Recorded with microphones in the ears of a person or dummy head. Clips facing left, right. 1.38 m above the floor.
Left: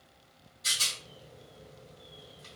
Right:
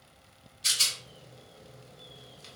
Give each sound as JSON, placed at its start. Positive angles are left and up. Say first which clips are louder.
{"t": 0.6, "sound": "a rattle", "louder": "even", "side_deg": -40, "distance_m": 1.2}